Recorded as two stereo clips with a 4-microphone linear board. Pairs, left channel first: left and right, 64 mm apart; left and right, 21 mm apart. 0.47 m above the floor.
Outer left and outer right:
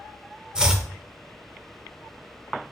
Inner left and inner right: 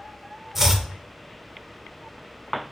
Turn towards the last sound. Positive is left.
turn(degrees=-15)  # may be behind; listen again after turning